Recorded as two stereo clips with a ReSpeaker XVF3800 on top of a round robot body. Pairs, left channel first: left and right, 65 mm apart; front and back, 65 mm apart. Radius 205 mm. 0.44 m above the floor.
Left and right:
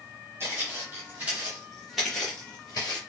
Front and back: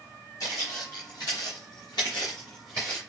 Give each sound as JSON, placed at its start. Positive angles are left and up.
{"t": 0.4, "sound": "footsteps", "azimuth_deg": -35, "distance_m": 1.3}